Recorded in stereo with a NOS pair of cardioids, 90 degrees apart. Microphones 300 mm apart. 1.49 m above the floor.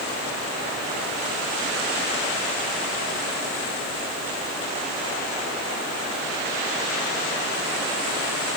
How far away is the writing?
I don't hear writing.